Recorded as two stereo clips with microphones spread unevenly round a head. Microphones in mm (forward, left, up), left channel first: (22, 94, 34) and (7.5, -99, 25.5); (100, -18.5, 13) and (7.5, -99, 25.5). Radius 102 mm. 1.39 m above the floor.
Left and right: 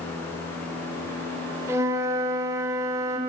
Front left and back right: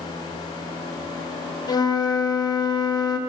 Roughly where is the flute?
Ahead.